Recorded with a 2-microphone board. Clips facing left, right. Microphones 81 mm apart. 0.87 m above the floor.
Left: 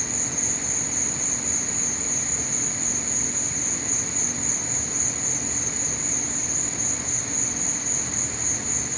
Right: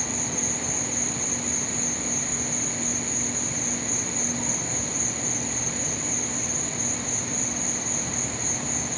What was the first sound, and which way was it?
An insect, 50° right (ahead or behind).